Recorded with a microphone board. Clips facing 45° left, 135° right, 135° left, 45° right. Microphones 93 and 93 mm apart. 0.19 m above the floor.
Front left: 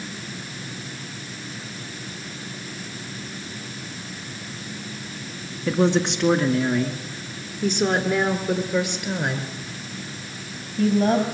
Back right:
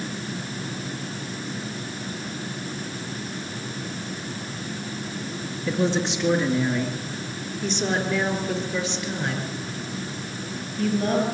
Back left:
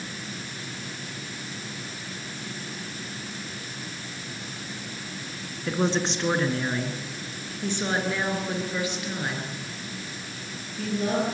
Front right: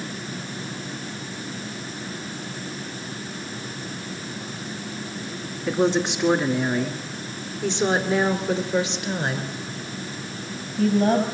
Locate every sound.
5.7 s a woman speaking: 40° left, 3 m; by 11.2 s 5° left, 5 m